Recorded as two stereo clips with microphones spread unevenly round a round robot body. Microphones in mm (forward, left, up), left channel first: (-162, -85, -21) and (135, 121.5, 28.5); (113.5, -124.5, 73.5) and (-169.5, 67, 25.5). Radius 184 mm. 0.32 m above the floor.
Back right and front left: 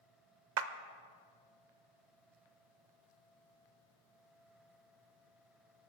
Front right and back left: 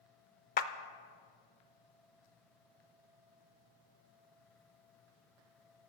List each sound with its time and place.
0.6 s a clap: 25° left, 0.7 m